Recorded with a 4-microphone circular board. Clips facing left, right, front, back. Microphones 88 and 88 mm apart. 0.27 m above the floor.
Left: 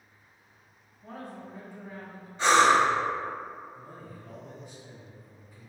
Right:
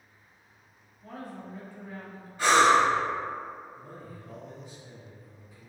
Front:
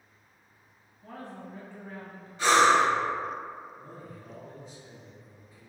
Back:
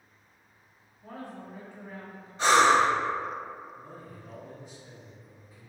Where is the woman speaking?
130° left, 1.0 m.